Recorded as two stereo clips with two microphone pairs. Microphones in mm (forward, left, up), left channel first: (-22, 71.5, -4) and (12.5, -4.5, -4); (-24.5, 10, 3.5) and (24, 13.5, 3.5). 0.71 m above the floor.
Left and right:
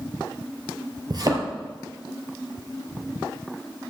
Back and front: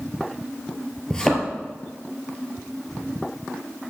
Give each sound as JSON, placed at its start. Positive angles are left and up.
{"t": 1.1, "sound": "a thud", "azimuth_deg": -100, "distance_m": 2.0}